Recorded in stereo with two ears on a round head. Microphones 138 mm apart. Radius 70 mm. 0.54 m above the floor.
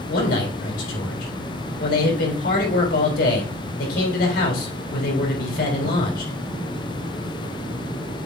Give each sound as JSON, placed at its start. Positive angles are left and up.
{"t": 0.1, "sound": "a man speaking", "side_deg": 70, "distance_m": 3.5}